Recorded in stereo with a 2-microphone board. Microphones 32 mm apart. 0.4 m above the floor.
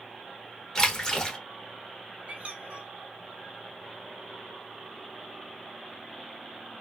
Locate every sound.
0.8 s a splash: 20° left (ahead or behind), 0.9 m
2.3 s a squeak: 55° right (ahead or behind), 0.9 m